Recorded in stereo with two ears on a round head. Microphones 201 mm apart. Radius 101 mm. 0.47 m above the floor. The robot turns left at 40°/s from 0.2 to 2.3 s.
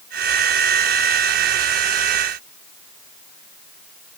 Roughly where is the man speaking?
No man speaking in this recording.